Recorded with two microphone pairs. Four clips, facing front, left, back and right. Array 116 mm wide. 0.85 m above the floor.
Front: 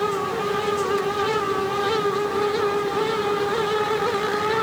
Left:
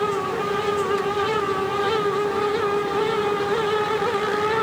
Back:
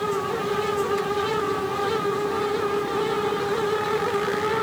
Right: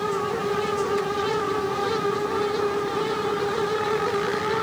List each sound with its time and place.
Only background noise.